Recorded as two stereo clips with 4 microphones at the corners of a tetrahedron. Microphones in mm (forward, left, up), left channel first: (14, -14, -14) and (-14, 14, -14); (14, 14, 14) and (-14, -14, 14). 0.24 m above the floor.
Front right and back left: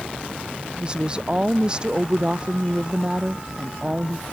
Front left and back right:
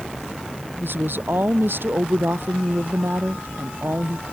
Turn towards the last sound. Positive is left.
turn(degrees=-160)